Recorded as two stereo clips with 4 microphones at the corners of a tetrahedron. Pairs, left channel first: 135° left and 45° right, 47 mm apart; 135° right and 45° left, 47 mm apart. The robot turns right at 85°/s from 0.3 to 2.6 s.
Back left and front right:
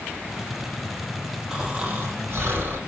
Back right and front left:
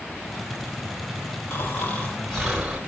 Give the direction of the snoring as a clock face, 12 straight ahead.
4 o'clock.